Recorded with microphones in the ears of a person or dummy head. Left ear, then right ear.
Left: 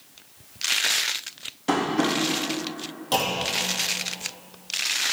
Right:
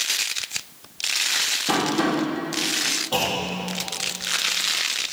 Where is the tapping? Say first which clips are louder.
Left 3 dB; 65° left (ahead or behind), 3.5 m.